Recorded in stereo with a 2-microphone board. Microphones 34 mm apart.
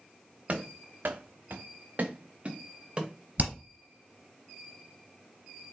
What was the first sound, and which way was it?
Running footsteps, 40° right (ahead or behind).